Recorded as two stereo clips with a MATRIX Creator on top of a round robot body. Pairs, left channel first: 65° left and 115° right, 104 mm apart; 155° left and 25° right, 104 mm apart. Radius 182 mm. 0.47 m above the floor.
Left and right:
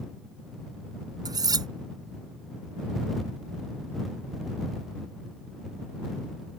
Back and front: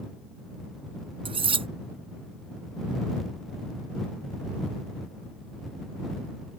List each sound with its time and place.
1.2 s cutlery clinking: 60° right